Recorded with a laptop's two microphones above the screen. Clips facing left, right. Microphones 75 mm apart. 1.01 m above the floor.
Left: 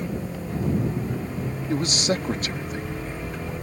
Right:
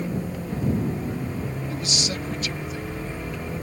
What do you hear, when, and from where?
1.7 s a man speaking: 45° left (ahead or behind)